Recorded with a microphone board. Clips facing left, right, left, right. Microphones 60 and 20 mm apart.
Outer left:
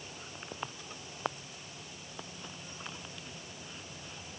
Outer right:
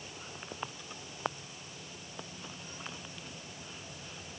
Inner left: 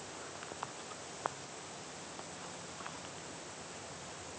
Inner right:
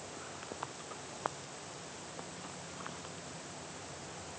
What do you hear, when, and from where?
Only background noise.